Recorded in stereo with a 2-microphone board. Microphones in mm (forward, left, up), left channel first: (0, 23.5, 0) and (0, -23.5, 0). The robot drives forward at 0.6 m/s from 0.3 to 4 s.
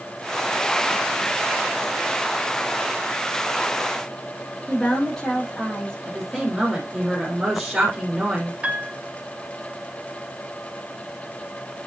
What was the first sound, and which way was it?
A woman speaking, 15° left (ahead or behind).